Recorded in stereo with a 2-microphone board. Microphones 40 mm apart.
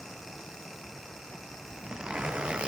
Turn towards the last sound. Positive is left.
turn(degrees=-25)  # may be behind; listen again after turning